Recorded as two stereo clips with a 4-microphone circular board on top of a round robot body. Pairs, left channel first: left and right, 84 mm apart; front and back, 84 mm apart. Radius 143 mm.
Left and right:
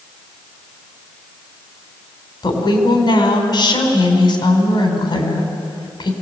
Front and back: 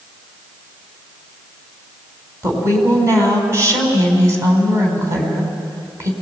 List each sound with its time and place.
2.4 s a woman speaking: 125° left, 4.5 m